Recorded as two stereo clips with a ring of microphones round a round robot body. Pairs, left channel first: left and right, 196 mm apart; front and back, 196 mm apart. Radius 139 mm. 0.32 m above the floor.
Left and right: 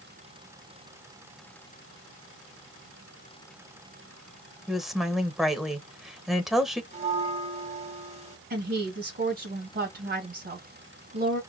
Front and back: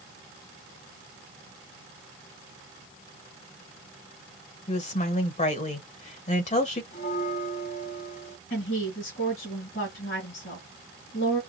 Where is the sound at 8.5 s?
60° right, 3 m.